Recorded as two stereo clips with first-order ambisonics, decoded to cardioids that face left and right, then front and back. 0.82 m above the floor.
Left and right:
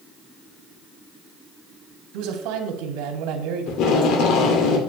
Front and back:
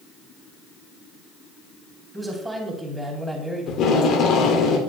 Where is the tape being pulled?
50° left, 2 m.